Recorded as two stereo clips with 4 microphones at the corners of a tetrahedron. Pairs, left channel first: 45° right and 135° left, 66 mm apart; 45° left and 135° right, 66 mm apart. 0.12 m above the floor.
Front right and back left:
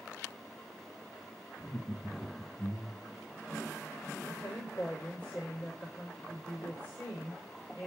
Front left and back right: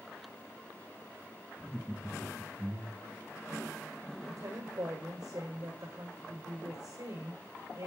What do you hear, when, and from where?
1.6 s laughter: 35° right, 2 m; by 3.2 s 120° right, 1.7 m
4.2 s a woman speaking: 110° right, 7.5 m